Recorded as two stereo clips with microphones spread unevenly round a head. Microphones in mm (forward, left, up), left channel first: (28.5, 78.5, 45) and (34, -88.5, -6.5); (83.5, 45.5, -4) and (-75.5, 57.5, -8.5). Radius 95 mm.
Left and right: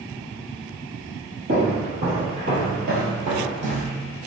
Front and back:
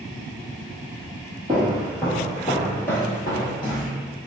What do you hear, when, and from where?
1.5 s footsteps: 120° right, 1.7 m; by 3.9 s 25° right, 1.4 m